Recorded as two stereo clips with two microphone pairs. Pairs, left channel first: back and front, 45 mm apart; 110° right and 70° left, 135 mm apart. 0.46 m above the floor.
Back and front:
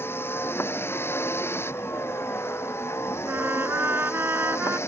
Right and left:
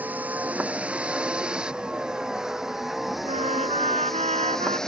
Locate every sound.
0.0 s a vehicle: 145° left; by 4.9 s 165° left
3.2 s a trumpet: 35° left